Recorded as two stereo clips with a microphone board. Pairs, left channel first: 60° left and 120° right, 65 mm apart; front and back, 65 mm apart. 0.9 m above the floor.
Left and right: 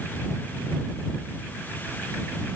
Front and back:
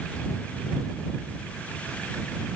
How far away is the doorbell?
No doorbell in this recording.